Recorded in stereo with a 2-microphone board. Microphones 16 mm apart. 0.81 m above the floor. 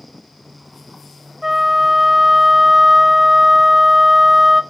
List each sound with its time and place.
1.4 s a flute: 20° right (ahead or behind), 0.8 m